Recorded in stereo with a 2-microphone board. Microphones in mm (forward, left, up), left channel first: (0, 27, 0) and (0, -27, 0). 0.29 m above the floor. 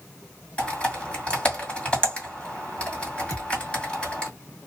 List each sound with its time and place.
0.6 s typing on a keyboard: 20° left (ahead or behind), 2 m
3.3 s a thud: 70° left (ahead or behind), 1.8 m